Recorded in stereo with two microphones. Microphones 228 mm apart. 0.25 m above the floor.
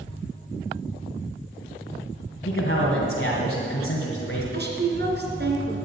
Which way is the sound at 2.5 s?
50° left (ahead or behind).